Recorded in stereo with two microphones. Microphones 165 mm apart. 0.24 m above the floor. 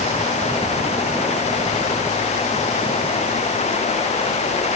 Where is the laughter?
I don't hear laughter.